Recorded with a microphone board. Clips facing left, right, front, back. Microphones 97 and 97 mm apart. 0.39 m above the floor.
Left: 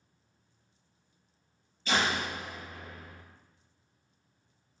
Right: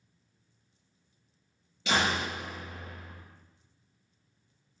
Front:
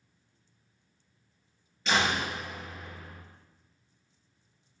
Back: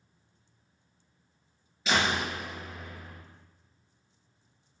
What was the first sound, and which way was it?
A door slam, 95° right.